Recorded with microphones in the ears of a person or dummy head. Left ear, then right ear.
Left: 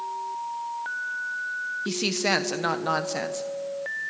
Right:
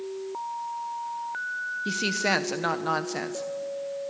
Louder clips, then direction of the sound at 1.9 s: Even; centre (ahead or behind).